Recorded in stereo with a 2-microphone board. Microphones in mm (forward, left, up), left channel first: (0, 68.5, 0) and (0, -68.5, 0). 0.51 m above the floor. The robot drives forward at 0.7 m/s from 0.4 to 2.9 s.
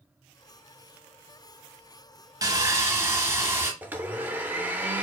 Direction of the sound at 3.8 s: 15° right (ahead or behind).